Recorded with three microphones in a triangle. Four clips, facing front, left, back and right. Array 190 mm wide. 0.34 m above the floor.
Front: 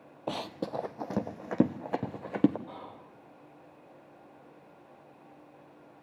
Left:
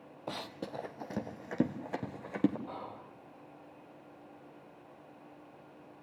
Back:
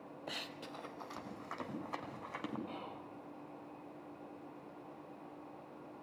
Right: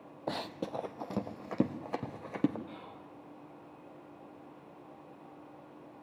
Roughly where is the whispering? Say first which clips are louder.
Left 4 dB, front 1 dB; left.